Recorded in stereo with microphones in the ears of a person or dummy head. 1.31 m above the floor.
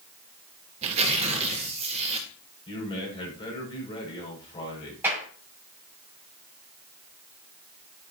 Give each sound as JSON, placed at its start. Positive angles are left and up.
{"t": 0.8, "sound": "tearing paper", "side_deg": -30, "distance_m": 1.9}
{"t": 2.7, "sound": "a man speaking", "side_deg": 30, "distance_m": 7.0}
{"t": 5.0, "sound": "a clap", "side_deg": -10, "distance_m": 7.5}